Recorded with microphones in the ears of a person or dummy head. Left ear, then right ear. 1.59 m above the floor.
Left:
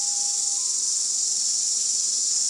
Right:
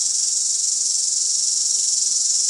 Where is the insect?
45° right (ahead or behind), 1.3 m.